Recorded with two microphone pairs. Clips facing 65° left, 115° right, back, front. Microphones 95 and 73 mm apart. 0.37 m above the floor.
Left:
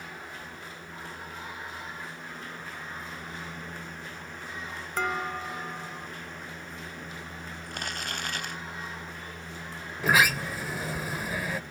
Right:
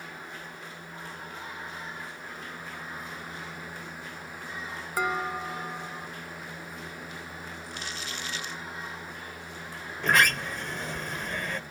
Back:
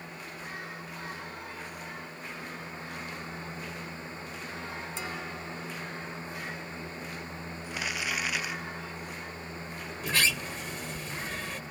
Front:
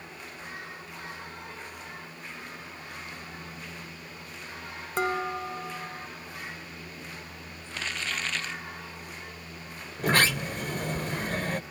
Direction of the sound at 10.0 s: 15° right.